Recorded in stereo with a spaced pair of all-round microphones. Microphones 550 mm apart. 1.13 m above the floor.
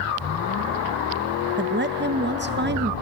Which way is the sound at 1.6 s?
20° right (ahead or behind).